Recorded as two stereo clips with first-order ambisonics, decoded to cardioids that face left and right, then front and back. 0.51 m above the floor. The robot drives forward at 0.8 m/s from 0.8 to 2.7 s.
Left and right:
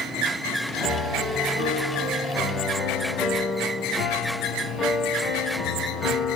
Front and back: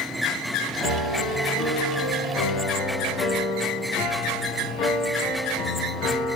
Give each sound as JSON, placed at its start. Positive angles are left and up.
{"t": 0.8, "sound": "a piano", "azimuth_deg": 10, "distance_m": 2.5}